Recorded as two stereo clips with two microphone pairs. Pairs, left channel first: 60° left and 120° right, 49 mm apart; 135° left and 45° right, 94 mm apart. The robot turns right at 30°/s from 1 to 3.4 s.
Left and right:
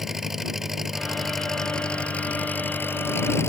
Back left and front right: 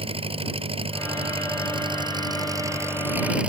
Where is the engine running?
35° right; by 3.5 s 35° left.